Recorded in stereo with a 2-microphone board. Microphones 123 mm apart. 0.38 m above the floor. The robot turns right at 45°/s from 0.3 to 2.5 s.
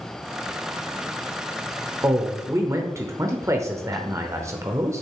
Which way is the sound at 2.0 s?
20° right (ahead or behind).